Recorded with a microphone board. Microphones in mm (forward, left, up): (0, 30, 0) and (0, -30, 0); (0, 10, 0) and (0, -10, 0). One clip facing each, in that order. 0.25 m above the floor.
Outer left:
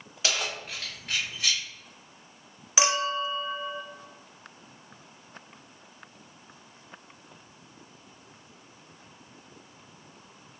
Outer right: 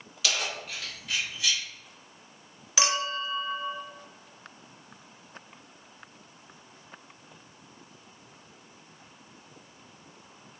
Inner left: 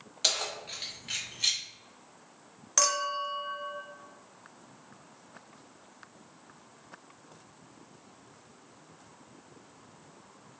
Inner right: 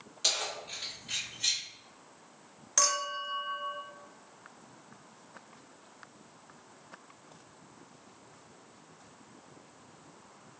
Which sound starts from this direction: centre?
A clink, at 2.8 s.